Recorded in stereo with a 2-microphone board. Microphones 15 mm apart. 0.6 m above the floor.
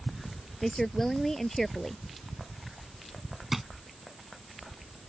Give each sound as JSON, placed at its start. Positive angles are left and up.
{"t": 0.6, "sound": "a woman speaking", "side_deg": 20}
{"t": 3.5, "sound": "a drawer", "side_deg": -15}